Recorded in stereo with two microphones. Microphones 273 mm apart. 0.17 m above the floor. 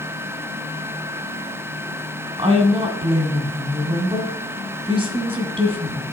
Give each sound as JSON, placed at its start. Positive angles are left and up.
{"t": 2.4, "sound": "a woman speaking", "side_deg": -20, "distance_m": 1.4}